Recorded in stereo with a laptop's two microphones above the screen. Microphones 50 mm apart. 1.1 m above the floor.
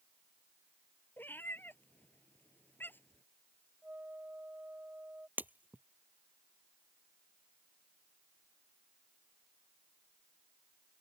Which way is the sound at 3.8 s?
40° right (ahead or behind).